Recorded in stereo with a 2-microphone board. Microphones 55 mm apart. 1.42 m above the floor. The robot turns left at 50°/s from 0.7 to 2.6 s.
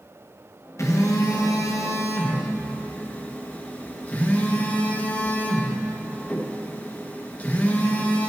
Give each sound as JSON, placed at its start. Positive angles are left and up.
{"t": 0.8, "sound": "a phone buzzing", "azimuth_deg": 120, "distance_m": 1.4}